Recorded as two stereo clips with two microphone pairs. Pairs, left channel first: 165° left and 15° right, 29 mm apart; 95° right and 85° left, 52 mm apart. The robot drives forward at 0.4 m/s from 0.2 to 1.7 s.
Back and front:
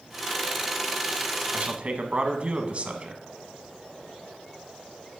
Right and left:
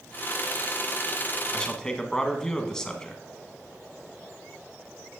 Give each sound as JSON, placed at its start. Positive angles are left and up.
{"t": 1.5, "sound": "a man speaking", "azimuth_deg": -20, "distance_m": 1.4}